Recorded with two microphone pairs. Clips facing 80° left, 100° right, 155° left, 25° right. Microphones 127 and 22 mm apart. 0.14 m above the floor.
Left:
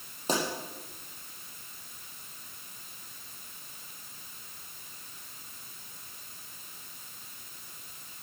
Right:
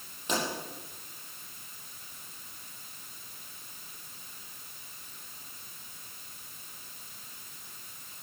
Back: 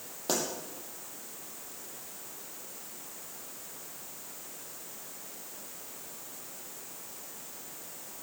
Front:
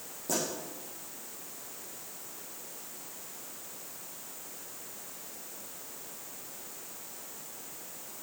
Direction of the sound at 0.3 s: 130° left.